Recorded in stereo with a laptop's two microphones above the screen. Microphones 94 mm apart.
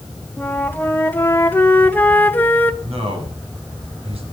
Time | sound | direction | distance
0.4 | a flute | 20° left (ahead or behind) | 1.2 m
2.8 | a man speaking | 75° right (ahead or behind) | 8 m